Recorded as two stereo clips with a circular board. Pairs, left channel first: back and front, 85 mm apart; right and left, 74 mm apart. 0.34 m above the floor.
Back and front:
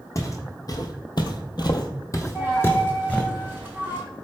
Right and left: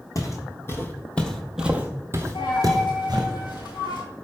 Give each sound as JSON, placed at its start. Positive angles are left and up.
{"t": 0.1, "sound": "footsteps", "azimuth_deg": -130, "distance_m": 0.9}
{"t": 2.4, "sound": "a dropped coin", "azimuth_deg": -70, "distance_m": 1.5}